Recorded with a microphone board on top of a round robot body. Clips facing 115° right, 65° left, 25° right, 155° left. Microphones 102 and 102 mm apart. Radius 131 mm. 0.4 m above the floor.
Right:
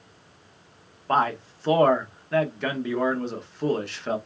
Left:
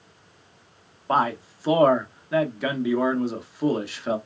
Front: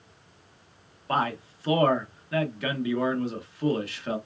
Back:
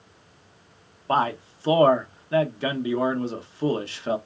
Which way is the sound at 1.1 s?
145° left.